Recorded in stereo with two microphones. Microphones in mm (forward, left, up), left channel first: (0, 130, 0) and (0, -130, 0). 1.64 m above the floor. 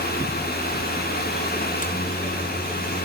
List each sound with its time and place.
1.6 s a microwave: 30° left (ahead or behind), 2.5 m